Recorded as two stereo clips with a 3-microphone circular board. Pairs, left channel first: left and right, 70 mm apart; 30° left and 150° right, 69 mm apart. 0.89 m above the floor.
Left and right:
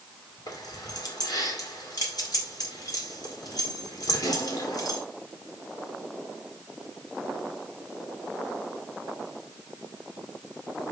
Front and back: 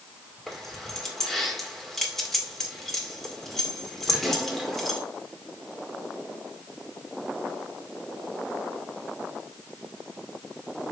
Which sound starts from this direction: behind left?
Keys jangling, at 0.5 s.